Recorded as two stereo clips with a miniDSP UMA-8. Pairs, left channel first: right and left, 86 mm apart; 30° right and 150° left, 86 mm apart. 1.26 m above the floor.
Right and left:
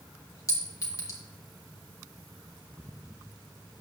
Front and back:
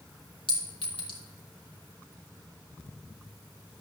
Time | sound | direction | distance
0.5 | a clink | 40° right | 1.9 m